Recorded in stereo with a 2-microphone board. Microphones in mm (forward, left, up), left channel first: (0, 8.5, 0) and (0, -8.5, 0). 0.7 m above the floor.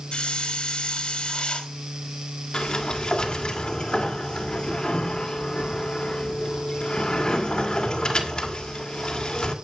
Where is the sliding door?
55° left (ahead or behind), 2.5 m.